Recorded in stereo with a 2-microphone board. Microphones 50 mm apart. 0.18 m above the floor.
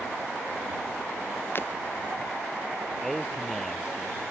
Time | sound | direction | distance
1.6 | breaking glass | 45° left (ahead or behind) | ?
3.0 | a man speaking | centre (ahead or behind) | ?